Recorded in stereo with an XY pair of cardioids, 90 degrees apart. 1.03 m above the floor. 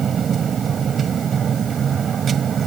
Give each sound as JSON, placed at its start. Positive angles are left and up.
{"t": 0.0, "sound": "a machine running", "azimuth_deg": -55}